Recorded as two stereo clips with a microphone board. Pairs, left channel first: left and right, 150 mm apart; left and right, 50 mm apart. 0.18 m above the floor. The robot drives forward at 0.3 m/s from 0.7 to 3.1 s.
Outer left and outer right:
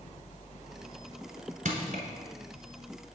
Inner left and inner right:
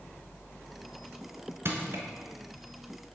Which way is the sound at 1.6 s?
60° right (ahead or behind).